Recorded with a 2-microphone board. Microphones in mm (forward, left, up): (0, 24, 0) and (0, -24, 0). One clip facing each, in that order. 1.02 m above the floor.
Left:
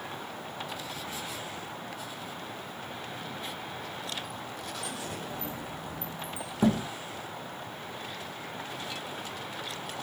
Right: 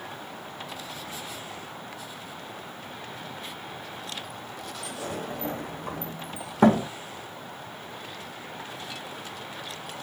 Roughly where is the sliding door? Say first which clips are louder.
Right 3 dB; right.